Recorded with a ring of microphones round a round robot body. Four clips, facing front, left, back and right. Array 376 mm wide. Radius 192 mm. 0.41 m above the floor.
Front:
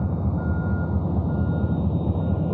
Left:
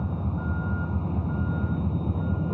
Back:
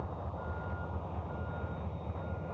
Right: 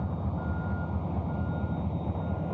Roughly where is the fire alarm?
I don't hear a fire alarm.